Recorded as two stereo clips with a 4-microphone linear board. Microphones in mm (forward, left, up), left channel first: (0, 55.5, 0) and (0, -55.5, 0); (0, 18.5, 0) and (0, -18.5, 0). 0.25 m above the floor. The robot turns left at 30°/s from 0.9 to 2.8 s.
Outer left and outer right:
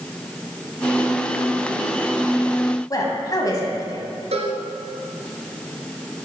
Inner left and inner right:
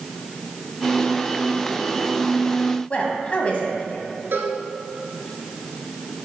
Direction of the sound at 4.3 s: 75° right (ahead or behind).